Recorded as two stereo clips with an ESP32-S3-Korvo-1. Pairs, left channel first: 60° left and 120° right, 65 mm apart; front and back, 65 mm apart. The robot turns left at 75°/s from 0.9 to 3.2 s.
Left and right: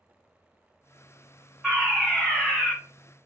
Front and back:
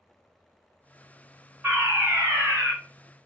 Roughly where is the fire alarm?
Behind.